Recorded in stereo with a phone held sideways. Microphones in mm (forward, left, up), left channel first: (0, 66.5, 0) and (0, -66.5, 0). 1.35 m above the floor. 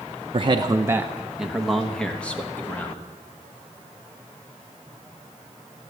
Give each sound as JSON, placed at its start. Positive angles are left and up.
{"t": 0.3, "sound": "a man speaking", "side_deg": -45, "distance_m": 0.7}